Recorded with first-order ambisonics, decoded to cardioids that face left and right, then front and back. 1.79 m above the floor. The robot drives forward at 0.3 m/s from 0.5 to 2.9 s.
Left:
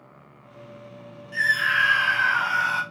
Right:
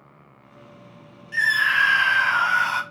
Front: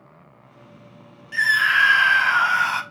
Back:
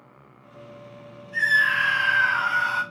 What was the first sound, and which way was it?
A scream, 20° right.